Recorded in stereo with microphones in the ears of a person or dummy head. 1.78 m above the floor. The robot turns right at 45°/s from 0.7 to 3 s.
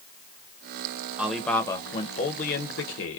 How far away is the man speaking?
About 0.7 m.